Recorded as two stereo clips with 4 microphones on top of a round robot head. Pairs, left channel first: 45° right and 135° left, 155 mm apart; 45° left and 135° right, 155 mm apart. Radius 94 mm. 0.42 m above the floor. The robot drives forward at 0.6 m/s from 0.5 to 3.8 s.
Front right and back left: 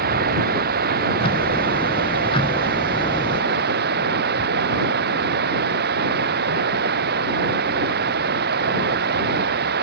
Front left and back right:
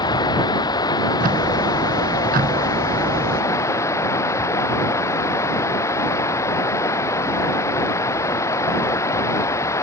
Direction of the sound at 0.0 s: 110° left.